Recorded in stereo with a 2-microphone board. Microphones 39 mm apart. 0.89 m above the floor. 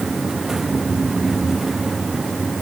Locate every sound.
Only background noise.